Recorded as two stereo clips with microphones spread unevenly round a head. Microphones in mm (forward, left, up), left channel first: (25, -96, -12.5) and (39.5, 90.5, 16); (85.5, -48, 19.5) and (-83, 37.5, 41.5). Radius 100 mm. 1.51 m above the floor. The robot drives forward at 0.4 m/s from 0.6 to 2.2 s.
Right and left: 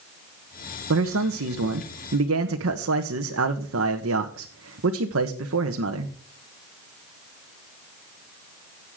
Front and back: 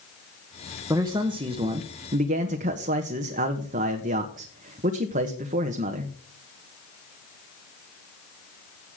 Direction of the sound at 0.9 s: 80° left.